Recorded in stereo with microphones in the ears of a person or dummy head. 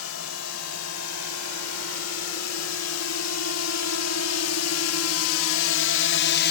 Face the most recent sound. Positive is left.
turn(degrees=50)  # may be behind; listen again after turning